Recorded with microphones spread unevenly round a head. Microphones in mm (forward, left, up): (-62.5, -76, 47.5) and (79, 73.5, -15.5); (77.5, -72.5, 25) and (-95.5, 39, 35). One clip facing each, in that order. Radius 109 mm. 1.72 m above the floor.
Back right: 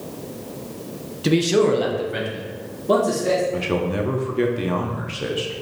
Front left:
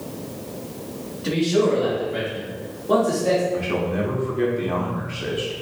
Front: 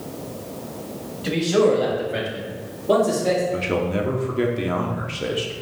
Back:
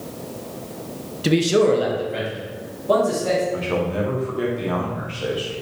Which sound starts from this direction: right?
A man speaking, at 3.5 s.